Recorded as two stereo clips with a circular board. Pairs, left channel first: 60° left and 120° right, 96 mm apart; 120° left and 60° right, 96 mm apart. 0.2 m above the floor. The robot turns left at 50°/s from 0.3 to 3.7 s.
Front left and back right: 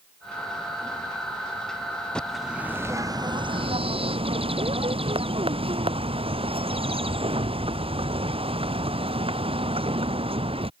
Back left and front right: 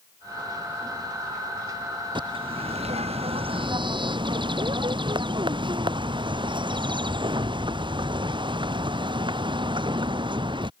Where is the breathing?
No breathing in this recording.